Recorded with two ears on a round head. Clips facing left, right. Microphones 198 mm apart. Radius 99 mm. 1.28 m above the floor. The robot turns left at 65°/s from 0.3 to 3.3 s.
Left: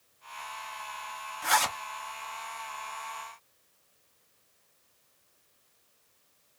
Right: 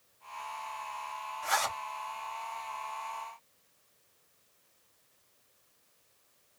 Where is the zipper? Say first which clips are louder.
Left 4 dB; 80° left, 2.5 m; by 1.8 s 55° left (ahead or behind), 2.5 m.